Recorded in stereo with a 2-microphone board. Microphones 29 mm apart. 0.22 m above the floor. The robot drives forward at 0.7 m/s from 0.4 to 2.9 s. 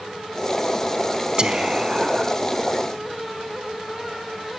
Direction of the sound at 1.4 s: 35° right (ahead or behind).